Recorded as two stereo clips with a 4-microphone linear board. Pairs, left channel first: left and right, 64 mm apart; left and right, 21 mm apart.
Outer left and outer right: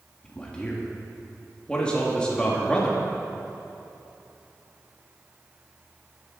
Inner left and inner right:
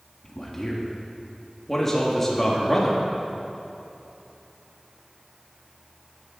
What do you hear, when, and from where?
0.2 s a man speaking: 15° left (ahead or behind), 1.9 m